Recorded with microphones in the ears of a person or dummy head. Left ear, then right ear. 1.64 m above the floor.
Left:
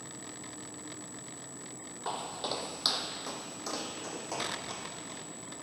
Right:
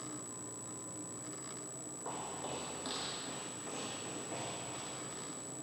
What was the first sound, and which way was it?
Footsteps, 45° left (ahead or behind).